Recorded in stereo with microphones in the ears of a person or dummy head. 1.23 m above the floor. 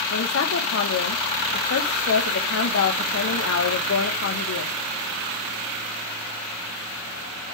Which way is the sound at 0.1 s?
65° left (ahead or behind).